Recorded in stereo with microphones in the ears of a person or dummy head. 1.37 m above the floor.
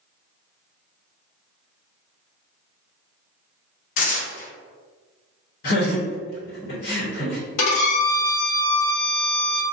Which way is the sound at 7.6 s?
85° left.